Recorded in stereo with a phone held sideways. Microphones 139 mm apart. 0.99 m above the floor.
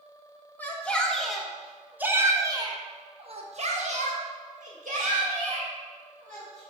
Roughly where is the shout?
Centre.